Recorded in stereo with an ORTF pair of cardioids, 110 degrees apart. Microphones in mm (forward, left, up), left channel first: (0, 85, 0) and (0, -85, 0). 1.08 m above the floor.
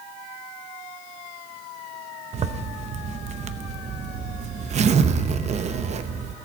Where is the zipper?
40° right, 0.8 m.